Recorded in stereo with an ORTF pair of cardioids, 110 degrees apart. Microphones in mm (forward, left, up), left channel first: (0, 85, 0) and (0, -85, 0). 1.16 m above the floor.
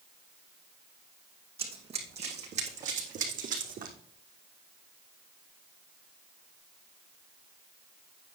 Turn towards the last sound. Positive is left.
turn(degrees=-60)